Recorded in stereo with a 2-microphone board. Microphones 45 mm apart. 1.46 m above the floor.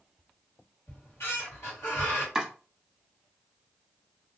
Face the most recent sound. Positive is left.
turn(degrees=-10)  # may be behind; listen again after turning